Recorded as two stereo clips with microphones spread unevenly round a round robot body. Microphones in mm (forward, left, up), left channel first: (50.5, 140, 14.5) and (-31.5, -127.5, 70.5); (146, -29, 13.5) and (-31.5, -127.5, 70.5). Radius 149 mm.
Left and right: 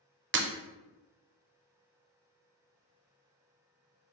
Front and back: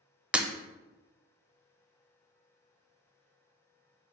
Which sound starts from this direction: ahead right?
Breaking glass, at 0.3 s.